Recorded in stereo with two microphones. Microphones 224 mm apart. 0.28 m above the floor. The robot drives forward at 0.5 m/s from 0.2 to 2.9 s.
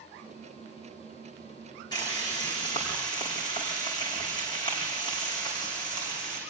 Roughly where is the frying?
Centre.